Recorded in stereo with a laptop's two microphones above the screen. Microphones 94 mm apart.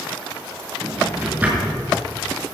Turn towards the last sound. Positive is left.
turn(degrees=-20)  # may be behind; listen again after turning